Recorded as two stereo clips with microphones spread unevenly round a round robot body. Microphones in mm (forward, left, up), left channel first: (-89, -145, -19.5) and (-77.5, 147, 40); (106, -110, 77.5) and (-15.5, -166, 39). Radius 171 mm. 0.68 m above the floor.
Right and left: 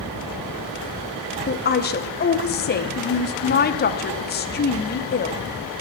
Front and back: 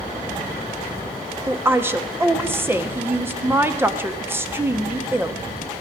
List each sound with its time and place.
1.5 s a woman speaking: 110° right, 1.2 m